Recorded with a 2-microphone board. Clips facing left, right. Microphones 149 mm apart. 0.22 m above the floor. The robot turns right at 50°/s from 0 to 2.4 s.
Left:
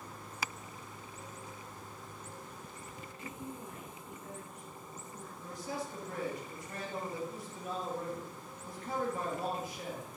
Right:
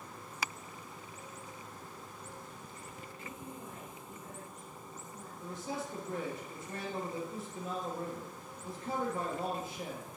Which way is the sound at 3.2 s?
Centre (ahead or behind).